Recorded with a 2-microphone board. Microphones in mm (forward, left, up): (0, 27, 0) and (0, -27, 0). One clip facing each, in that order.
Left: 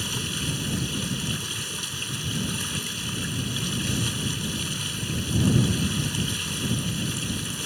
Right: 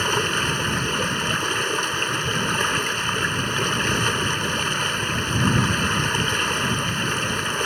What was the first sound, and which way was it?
Running water, 55° right (ahead or behind).